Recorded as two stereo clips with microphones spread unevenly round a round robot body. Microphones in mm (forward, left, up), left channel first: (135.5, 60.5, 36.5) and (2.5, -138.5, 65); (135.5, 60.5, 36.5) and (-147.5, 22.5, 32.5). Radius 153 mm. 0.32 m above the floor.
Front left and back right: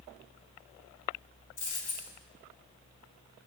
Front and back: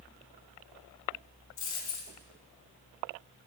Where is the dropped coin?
55° left, 1.8 m.